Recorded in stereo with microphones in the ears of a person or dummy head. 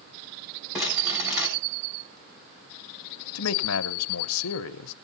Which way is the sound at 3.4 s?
85° left.